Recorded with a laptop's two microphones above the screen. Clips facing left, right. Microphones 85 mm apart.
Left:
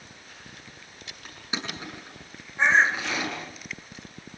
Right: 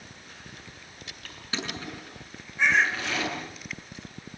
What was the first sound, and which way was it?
Crushing, 15° left (ahead or behind).